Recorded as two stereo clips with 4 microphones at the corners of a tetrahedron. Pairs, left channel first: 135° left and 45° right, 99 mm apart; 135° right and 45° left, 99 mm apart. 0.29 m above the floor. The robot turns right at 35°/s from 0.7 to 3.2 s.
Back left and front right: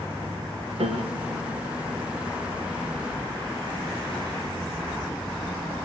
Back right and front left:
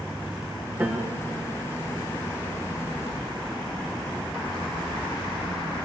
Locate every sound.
0.8 s a piano: 25° right, 4 m; by 1.6 s 5° left, 4 m